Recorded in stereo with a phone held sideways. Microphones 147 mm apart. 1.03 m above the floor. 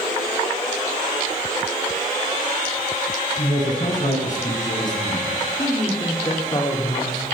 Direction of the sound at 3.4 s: 60° left (ahead or behind).